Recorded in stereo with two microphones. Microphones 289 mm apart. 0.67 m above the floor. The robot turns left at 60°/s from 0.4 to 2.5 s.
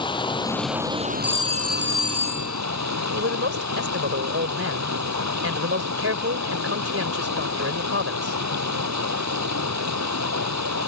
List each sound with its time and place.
0.0 s running water: 15° left; by 10.9 s 110° right
1.2 s a phone ringing: 5° right; by 2.6 s 80° right
3.1 s a man speaking: 50° right (ahead or behind)